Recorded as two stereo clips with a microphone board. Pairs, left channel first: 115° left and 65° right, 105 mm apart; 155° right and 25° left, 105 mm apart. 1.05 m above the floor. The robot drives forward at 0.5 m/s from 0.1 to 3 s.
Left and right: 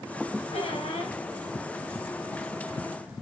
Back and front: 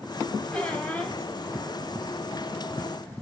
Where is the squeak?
125° left, 4.5 m; by 1.1 s 130° left, 5 m.